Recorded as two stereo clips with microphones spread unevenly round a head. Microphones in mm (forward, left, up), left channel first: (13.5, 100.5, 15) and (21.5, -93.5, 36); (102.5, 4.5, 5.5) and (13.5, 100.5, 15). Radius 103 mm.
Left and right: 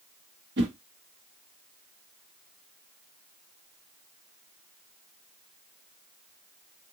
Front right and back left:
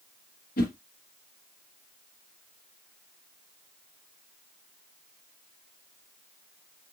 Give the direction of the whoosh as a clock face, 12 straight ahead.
2 o'clock.